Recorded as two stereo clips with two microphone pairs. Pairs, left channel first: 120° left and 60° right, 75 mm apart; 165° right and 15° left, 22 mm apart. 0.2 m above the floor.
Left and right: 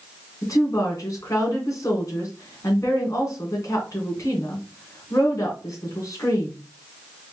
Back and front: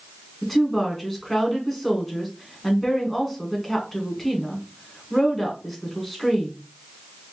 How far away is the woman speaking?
About 2 m.